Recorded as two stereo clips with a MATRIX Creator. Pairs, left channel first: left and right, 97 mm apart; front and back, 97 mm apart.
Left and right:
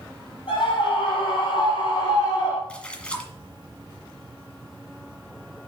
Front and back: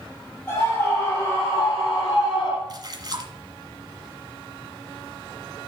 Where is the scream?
65° left, 4.5 m; by 2.6 s 35° left, 2.5 m.